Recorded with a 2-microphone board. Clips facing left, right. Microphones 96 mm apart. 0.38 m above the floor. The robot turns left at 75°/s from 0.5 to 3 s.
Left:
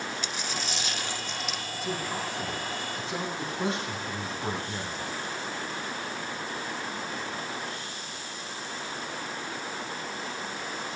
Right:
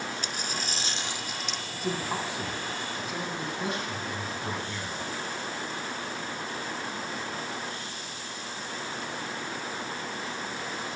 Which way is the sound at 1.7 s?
115° right.